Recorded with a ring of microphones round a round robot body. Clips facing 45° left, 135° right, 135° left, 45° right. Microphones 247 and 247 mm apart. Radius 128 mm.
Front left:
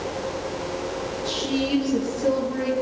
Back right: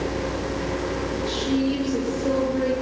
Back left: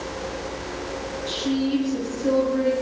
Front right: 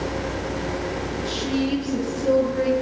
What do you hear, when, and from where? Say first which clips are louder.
1.2 s a woman speaking: back right 2 dB, back left 1 dB; 10° right, 9 m